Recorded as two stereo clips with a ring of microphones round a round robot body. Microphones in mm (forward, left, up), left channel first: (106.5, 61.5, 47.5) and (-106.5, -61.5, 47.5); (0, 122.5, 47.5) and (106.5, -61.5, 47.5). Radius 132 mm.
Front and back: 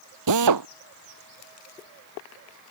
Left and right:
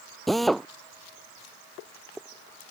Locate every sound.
0.3 s a drill: 150° right